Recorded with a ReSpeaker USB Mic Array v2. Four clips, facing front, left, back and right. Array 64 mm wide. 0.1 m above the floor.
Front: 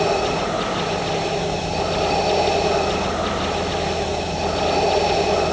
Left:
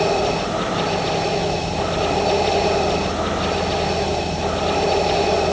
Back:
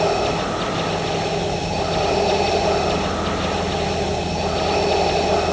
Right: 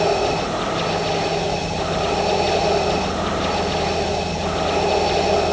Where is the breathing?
I don't hear breathing.